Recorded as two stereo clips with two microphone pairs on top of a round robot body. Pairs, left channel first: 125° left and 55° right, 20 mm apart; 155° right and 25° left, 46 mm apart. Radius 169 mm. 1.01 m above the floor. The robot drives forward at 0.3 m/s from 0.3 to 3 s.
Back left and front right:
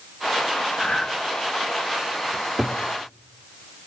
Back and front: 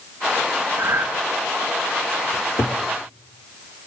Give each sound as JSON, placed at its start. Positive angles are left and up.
{"t": 0.8, "sound": "breathing", "azimuth_deg": 65, "distance_m": 0.7}
{"t": 2.3, "sound": "a cupboard door", "azimuth_deg": -125, "distance_m": 0.9}